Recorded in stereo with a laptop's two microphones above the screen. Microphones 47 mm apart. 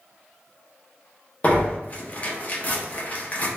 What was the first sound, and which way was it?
Tearing paper, 30° left (ahead or behind).